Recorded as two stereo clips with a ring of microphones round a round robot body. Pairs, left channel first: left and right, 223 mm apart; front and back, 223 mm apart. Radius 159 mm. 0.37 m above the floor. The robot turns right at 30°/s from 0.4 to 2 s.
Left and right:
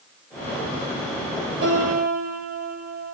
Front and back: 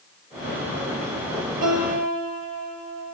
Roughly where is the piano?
Behind right.